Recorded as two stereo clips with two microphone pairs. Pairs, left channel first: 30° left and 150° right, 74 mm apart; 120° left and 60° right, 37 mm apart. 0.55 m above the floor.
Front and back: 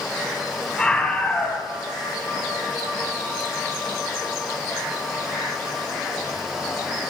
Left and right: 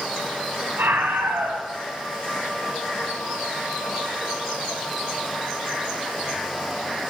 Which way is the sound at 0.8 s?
50° right.